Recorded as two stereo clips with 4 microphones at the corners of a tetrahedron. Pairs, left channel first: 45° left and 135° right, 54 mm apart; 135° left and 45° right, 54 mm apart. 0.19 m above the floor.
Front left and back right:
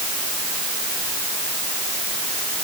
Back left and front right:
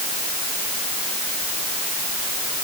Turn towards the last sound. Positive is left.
No sound to turn to.